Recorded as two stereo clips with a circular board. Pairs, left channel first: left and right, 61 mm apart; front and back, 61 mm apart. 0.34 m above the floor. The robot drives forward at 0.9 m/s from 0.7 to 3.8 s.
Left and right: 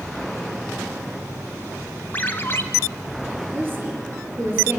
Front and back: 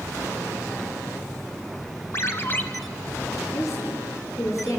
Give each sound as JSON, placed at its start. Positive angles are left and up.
{"t": 2.1, "sound": "a ringtone", "azimuth_deg": 35, "distance_m": 1.4}
{"t": 3.5, "sound": "a woman speaking", "azimuth_deg": -35, "distance_m": 6.0}